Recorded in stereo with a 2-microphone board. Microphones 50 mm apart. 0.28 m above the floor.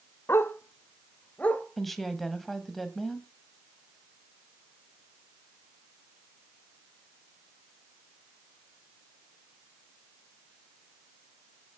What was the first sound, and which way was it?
A dog barking, 60° left (ahead or behind).